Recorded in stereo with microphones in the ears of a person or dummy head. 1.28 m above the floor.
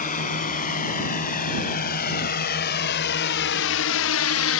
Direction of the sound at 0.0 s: 35° left (ahead or behind).